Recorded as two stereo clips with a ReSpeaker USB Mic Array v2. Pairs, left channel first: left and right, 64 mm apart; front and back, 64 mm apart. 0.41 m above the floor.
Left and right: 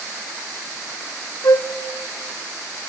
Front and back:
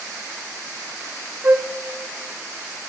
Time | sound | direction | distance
1.4 | a flute | 120° left | 0.8 m